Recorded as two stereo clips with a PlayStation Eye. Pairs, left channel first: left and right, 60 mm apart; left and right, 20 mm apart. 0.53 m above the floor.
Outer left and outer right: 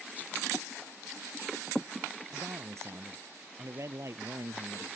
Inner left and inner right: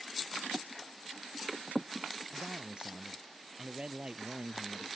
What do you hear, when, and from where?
2.3 s a man speaking: 55° right (ahead or behind)